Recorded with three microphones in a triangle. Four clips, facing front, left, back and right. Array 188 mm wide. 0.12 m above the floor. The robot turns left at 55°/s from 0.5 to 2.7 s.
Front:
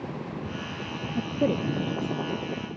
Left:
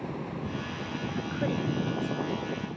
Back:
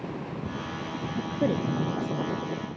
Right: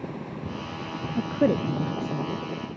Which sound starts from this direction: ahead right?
A woman speaking, at 1.2 s.